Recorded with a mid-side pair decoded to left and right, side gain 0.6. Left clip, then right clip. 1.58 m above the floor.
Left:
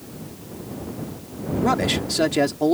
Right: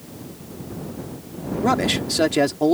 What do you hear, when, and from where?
1.6 s a man speaking: 10° right